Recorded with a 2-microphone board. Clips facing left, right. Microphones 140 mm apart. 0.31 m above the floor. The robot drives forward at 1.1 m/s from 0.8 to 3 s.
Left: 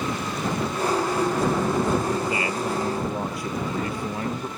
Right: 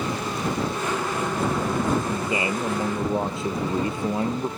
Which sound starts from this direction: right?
A man speaking, at 2.1 s.